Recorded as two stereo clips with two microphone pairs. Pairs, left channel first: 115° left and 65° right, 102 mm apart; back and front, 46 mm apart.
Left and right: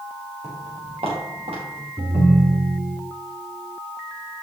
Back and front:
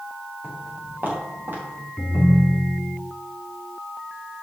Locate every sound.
0.4 s footsteps: 60° right, 5 m; by 1.9 s 45° right, 5.5 m
2.0 s a ringtone: 120° right, 1.9 m